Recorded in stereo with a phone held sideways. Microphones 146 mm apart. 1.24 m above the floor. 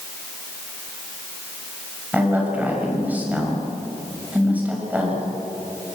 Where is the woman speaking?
10° right (ahead or behind), 6 m.